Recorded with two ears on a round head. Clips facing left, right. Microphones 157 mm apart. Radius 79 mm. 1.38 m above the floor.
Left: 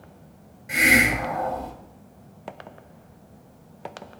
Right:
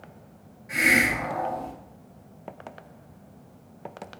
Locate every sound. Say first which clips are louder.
0.7 s a hiss: left 3 dB; 30° left (ahead or behind), 1.3 m